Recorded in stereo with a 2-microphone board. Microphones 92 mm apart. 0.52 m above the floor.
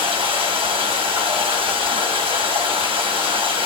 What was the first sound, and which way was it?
Running water, 75° right (ahead or behind).